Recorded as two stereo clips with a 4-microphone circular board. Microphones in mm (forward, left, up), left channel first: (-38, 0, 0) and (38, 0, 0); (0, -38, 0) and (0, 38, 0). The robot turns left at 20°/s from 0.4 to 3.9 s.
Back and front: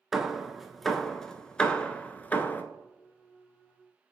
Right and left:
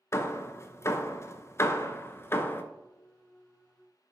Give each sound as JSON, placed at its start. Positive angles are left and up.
{"t": 0.1, "sound": "hammering", "azimuth_deg": -85, "distance_m": 0.6}